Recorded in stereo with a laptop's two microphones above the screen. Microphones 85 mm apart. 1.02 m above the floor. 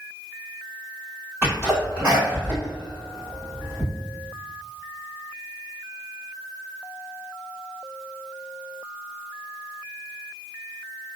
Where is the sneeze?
25° right (ahead or behind), 1.9 m.